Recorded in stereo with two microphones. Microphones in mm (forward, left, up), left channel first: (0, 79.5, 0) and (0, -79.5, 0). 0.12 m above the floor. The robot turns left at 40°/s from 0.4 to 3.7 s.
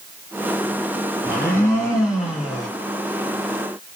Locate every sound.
1.2 s a blender: 15° right (ahead or behind), 1.3 m; by 2.7 s centre (ahead or behind), 1.3 m